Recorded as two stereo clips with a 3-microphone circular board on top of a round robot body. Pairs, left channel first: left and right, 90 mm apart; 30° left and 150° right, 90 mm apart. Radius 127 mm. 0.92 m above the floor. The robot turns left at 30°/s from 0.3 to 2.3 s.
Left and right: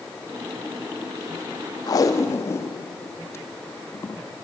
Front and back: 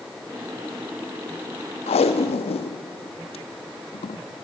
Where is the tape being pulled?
35° left, 0.8 m; by 4.2 s 25° left, 0.8 m.